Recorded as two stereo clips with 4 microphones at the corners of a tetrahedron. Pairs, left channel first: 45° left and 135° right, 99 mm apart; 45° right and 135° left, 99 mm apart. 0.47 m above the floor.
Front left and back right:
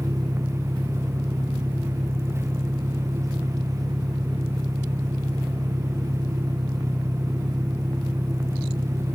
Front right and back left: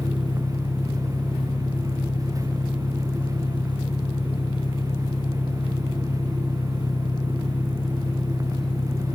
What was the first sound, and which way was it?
An engine running, 80° right.